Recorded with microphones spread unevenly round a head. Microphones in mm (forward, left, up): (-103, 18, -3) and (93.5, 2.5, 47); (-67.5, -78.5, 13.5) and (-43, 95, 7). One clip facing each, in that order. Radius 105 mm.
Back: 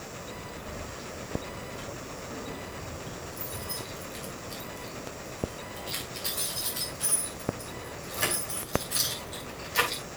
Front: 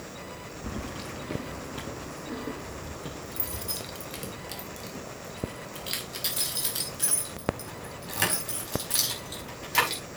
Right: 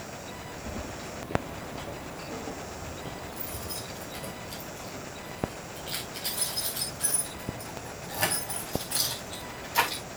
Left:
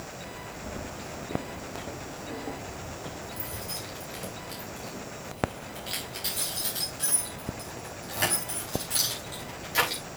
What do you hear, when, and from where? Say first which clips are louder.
0.6 s keys jangling: front 8 dB, even; 15° right, 1.1 m; by 10.0 s 10° left, 6.5 m